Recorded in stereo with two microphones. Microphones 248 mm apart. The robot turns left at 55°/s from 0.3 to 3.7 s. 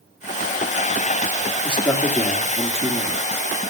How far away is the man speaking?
About 1.5 m.